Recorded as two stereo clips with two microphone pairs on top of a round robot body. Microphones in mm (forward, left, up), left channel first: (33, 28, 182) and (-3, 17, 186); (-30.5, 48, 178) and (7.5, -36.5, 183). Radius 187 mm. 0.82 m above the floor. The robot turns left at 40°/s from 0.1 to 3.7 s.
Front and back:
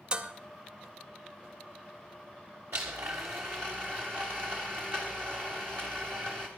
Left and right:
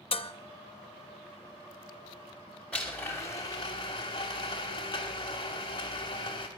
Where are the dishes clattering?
130° left, 0.7 m; by 0.3 s 120° left, 0.7 m.